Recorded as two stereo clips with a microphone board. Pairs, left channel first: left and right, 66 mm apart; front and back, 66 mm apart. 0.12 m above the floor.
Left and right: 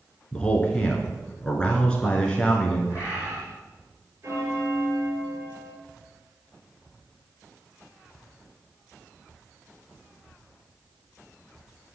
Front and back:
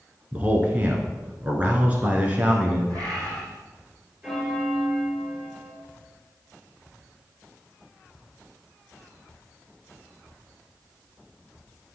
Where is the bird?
150° right, 5 m.